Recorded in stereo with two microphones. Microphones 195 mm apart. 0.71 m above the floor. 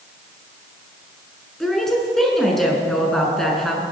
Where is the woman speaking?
Centre (ahead or behind), 7 m.